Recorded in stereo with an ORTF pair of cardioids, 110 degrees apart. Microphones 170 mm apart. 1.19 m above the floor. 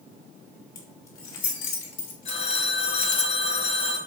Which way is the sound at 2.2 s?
45° left.